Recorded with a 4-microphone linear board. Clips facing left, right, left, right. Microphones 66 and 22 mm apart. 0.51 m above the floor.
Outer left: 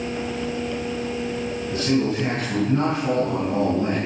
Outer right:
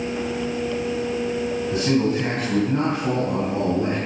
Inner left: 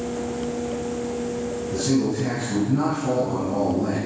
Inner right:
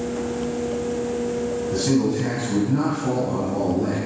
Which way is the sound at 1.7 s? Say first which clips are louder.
Outer right 1 dB, inner right 1 dB; 15° right (ahead or behind).